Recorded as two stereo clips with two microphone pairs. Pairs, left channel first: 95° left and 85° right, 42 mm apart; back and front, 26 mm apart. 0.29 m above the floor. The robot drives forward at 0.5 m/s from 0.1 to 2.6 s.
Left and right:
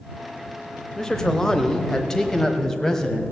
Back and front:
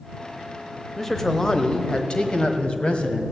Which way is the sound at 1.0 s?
135° left.